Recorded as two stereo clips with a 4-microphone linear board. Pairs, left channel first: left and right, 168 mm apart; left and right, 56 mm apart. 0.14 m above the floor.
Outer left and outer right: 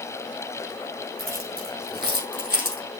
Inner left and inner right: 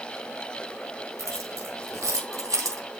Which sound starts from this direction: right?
Keys jangling, at 1.2 s.